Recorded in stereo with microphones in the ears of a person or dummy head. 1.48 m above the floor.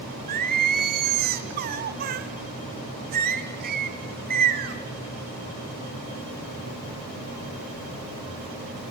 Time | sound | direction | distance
0.3 | singing | 45° right (ahead or behind) | 1.3 m